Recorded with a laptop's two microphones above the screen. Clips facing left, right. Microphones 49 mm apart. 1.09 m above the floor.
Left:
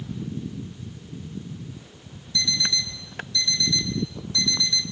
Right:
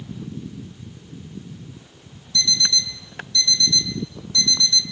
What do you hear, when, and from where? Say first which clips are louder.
2.3 s an alarm clock: right 3 dB; 20° left (ahead or behind), 6 m